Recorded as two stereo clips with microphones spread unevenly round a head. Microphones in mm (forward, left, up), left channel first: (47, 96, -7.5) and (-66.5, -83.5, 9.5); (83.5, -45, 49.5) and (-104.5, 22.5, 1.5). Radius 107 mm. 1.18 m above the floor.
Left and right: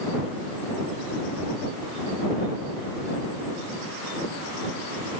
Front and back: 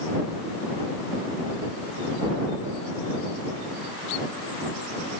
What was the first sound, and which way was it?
Only background noise.